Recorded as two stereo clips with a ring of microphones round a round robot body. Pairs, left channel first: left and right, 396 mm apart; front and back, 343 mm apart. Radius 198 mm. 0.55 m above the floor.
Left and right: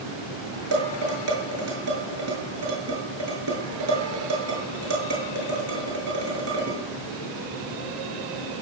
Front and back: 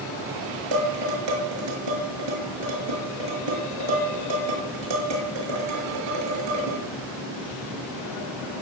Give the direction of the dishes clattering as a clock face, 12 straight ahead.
5 o'clock.